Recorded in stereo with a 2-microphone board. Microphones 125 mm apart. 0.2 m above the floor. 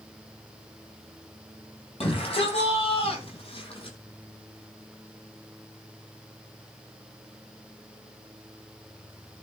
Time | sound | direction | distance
2.0 | a shout | 50° left (ahead or behind) | 6.5 m